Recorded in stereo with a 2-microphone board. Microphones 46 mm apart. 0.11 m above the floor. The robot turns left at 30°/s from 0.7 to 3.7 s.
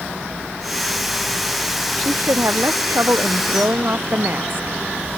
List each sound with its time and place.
2.0 s a woman speaking: 80° right; by 4.8 s 130° right